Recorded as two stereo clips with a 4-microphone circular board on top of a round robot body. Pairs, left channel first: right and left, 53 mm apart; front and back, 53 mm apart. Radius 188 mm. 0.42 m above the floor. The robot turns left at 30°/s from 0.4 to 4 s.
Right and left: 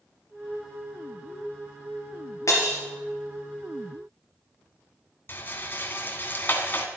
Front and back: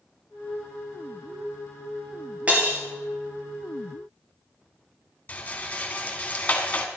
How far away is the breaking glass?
About 2.5 m.